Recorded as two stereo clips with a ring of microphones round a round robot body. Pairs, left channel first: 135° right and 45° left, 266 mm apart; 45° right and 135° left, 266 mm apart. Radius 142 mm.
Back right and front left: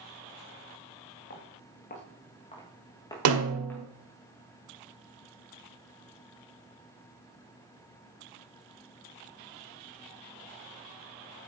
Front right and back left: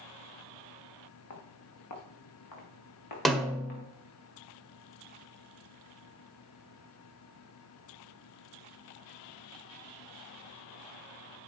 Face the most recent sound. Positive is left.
turn(degrees=45)